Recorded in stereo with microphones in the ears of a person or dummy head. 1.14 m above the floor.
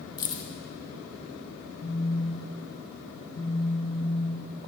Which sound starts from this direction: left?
A phone buzzing, at 1.8 s.